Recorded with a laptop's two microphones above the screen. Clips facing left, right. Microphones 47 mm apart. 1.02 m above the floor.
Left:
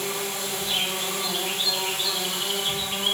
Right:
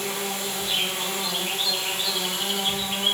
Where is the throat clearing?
I don't hear throat clearing.